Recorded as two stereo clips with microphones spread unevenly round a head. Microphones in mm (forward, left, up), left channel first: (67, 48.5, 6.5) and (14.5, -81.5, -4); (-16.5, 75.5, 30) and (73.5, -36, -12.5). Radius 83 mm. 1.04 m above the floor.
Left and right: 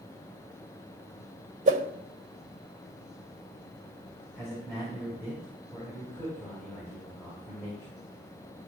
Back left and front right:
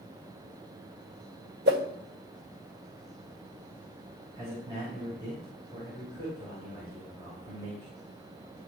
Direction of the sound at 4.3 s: Straight ahead.